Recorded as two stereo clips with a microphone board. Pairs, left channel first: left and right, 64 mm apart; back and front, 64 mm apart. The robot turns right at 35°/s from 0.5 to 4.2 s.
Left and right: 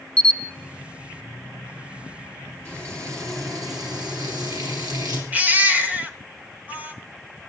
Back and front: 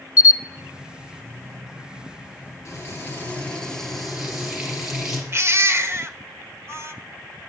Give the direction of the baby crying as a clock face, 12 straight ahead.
1 o'clock.